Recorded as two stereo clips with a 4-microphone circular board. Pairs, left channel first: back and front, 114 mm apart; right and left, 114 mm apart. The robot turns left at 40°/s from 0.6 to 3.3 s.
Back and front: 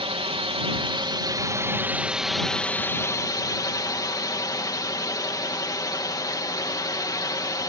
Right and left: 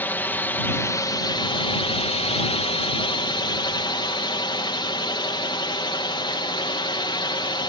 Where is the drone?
20° right; by 7.7 s 130° right.